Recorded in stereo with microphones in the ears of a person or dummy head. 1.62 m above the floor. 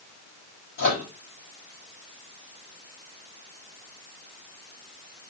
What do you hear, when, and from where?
0.8 s a microwave: 50° left (ahead or behind), 8.5 m